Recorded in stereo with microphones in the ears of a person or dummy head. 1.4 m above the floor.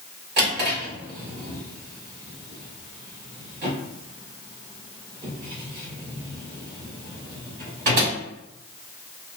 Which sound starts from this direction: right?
A drawer, at 0.4 s.